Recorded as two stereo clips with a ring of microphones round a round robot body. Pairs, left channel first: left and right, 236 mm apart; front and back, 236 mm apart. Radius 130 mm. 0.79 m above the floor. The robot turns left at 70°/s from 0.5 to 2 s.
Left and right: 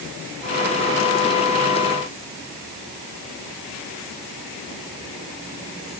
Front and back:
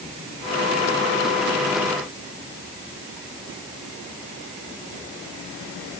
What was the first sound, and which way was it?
Only background noise.